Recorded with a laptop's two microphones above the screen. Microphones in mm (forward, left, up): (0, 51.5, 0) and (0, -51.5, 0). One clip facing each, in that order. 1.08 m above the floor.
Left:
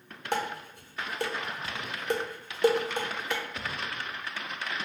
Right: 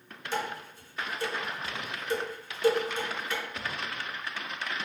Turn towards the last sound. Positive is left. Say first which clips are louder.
# left 2 dB
turn(degrees=60)  # may be behind; listen again after turning